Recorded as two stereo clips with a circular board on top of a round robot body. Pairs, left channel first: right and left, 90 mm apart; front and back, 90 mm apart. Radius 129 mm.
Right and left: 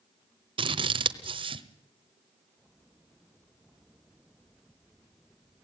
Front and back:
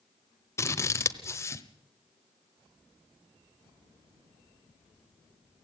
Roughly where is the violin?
No violin in this recording.